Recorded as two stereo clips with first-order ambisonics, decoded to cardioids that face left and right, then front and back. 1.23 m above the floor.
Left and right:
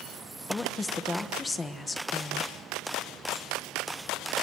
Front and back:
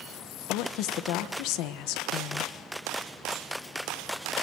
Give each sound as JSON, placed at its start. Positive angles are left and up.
{"t": 0.5, "sound": "a woman speaking", "azimuth_deg": 15, "distance_m": 1.2}